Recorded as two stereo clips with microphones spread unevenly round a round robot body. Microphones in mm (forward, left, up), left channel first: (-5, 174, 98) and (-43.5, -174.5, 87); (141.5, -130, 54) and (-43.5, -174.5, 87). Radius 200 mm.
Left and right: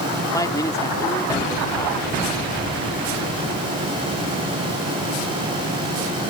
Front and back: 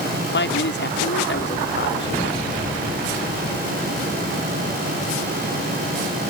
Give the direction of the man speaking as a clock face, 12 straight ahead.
12 o'clock.